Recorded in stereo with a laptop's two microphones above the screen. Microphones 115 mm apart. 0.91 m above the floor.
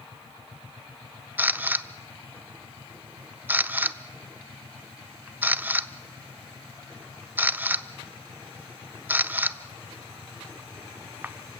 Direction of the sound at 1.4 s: 15° right (ahead or behind).